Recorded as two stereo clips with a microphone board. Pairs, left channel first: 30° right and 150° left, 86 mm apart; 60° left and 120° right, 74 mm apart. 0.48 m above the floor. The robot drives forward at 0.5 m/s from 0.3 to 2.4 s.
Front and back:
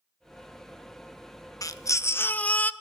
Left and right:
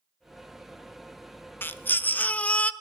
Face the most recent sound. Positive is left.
turn(degrees=15)